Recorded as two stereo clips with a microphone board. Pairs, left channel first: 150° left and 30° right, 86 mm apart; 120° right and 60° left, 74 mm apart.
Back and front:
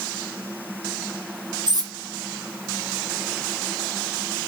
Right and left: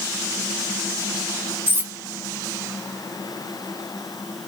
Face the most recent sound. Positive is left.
turn(degrees=0)